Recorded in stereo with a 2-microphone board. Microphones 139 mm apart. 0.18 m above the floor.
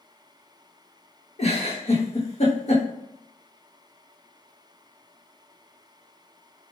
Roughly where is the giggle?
Left.